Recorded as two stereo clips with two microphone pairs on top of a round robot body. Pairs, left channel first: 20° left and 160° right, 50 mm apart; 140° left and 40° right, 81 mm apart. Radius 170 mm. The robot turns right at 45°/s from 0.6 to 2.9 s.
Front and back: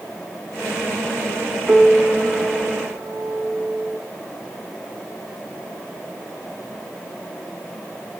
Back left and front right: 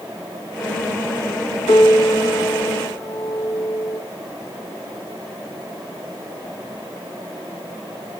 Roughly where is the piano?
Behind left.